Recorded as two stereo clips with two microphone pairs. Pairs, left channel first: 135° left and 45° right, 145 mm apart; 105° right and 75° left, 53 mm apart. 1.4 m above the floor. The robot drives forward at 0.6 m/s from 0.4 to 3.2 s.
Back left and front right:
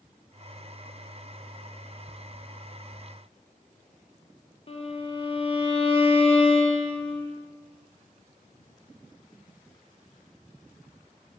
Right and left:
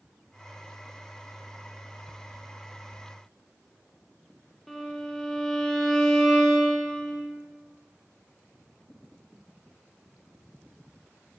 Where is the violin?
170° left, 0.6 m.